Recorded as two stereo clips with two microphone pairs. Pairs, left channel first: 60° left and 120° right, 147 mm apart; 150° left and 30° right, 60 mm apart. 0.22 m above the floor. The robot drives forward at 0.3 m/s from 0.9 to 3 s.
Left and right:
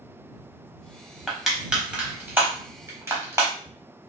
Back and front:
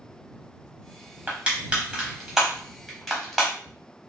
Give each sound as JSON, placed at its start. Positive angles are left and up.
{"t": 1.3, "sound": "crushing", "azimuth_deg": -30, "distance_m": 0.9}